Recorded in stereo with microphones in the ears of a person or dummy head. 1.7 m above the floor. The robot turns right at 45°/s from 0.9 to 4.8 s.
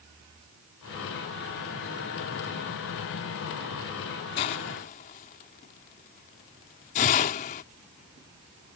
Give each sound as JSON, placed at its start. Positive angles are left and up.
{"t": 4.4, "sound": "a hiss", "side_deg": 30}